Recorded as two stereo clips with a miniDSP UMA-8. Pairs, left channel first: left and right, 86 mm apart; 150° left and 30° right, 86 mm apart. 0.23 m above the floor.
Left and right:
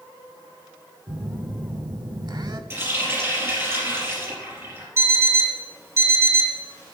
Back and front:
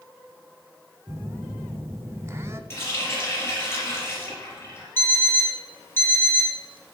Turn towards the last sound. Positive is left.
turn(degrees=-145)